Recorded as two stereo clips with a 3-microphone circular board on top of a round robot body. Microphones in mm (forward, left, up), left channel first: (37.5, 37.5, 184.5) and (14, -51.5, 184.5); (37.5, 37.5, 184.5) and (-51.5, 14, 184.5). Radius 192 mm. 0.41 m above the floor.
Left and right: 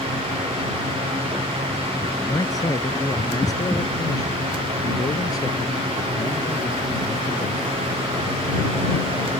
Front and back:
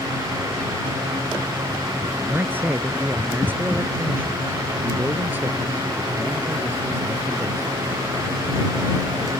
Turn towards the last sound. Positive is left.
turn(degrees=125)